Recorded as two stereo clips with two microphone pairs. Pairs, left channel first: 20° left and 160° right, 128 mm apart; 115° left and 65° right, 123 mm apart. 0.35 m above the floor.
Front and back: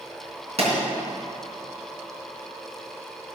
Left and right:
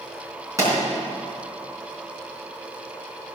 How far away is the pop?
About 4 m.